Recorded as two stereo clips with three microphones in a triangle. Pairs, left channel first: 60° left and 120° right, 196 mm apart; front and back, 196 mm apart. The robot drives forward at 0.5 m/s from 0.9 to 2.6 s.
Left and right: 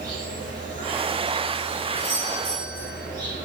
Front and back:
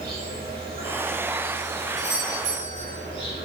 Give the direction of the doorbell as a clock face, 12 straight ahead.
6 o'clock.